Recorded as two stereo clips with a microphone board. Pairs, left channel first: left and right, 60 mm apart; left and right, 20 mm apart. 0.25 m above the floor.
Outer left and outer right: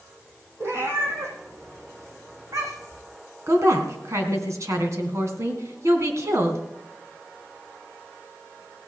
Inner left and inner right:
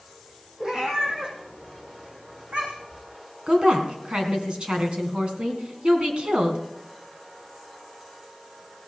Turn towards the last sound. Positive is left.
turn(degrees=-55)  # may be behind; listen again after turning